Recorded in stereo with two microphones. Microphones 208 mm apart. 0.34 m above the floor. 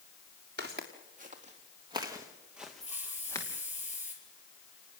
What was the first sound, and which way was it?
Footsteps, 50° right (ahead or behind).